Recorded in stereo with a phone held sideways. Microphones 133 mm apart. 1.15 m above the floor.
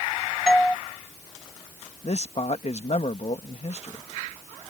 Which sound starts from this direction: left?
A man speaking, at 2.0 s.